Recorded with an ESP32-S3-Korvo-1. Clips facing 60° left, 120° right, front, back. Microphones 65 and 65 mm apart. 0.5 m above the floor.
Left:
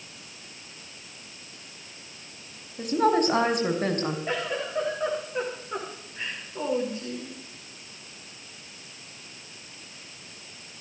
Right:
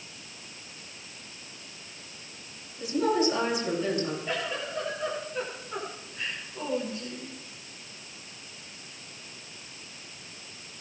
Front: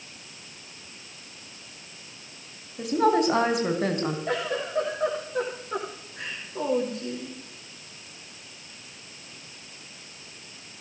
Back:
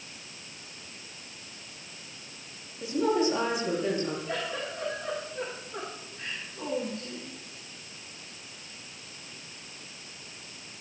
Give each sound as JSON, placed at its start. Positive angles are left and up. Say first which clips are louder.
{"t": 2.8, "sound": "a woman speaking", "louder": "left 3 dB, front 4 dB", "azimuth_deg": 25, "distance_m": 4.0}
{"t": 4.3, "sound": "a giggle", "louder": "left 3 dB, front 5 dB", "azimuth_deg": -5, "distance_m": 8.0}